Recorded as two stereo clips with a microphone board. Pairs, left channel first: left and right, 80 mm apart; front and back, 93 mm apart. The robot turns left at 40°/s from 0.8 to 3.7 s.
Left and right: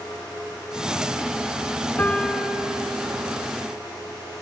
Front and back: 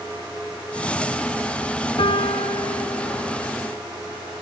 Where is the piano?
25° left, 0.9 m; by 3.5 s 35° right, 0.9 m.